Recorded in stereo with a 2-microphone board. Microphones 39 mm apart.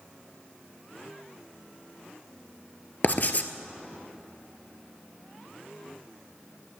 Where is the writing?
50° left (ahead or behind), 0.7 m.